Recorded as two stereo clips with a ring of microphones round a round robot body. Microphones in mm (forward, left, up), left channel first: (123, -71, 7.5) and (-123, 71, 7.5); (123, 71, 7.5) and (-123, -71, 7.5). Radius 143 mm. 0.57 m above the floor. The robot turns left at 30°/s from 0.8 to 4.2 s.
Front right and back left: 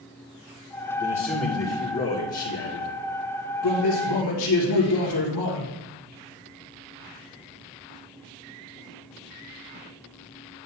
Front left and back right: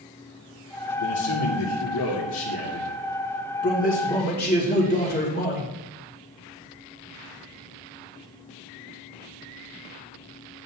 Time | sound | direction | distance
1.0 | a man speaking | 55° left | 2.5 m